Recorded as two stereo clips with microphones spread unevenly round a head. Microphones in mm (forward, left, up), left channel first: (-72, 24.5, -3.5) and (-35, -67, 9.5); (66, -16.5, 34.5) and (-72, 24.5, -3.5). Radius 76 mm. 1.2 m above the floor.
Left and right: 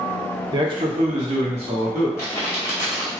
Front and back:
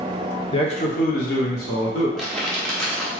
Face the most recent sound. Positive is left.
turn(degrees=45)